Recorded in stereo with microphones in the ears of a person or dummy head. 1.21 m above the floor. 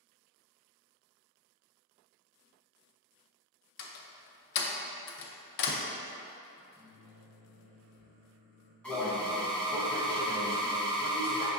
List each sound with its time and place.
3.8 s a door slam: 60° left (ahead or behind), 0.5 m
6.5 s a microwave: 5° left (ahead or behind), 1.3 m
8.8 s an alarm: 5° left (ahead or behind), 0.7 m